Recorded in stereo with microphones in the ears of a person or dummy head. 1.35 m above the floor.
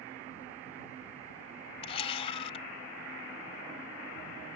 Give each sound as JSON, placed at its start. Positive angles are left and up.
{"t": 1.8, "sound": "a camera shutter", "side_deg": 30}